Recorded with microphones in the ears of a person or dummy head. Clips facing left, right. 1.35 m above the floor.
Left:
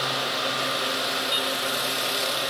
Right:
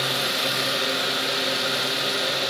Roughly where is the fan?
Right.